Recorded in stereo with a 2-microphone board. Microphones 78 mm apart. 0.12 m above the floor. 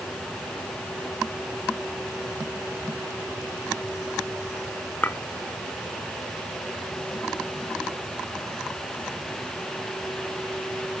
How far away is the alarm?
No alarm in this recording.